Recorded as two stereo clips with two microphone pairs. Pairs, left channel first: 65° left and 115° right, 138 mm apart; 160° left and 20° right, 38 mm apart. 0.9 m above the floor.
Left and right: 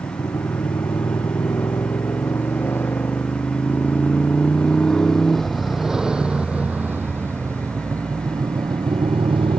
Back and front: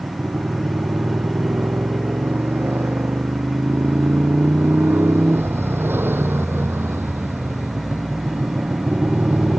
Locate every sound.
0.0 s a motorcycle: straight ahead; by 9.6 s 70° right